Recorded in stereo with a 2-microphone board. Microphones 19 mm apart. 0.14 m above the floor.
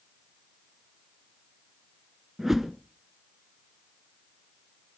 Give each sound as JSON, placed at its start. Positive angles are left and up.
{"t": 2.4, "sound": "a whoosh", "side_deg": -25, "distance_m": 1.0}